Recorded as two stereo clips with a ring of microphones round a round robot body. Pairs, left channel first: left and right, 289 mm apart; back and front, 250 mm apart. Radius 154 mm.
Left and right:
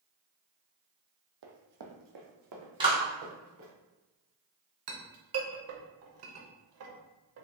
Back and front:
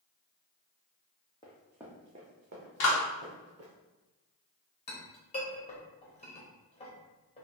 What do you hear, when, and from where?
1.4 s running footsteps: 105° right, 0.9 m; by 3.7 s 45° right, 2.5 m
2.8 s a clap: 165° right, 1.7 m
4.9 s a clink: 115° right, 0.9 m